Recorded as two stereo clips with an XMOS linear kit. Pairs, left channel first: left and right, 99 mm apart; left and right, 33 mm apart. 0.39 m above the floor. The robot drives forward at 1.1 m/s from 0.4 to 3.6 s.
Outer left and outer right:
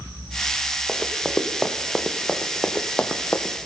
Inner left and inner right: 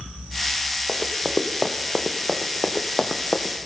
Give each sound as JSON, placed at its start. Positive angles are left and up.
{"t": 0.9, "sound": "running footsteps", "side_deg": 5, "distance_m": 1.5}